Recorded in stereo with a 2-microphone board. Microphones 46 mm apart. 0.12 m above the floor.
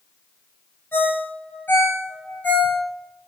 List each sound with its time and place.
0.9 s a ringtone: 45° left (ahead or behind), 1.6 m